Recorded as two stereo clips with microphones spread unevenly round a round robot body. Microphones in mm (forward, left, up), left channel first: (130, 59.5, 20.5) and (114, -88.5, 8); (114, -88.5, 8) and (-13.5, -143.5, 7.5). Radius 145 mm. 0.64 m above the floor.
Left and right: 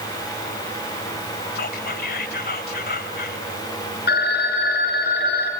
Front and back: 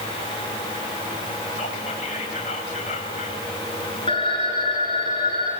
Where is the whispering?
80° left, 3 m.